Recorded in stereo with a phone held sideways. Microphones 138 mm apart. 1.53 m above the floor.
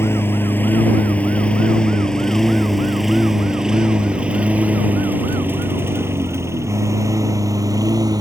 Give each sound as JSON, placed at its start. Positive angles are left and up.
{"t": 0.0, "sound": "a lawn mower", "side_deg": 15}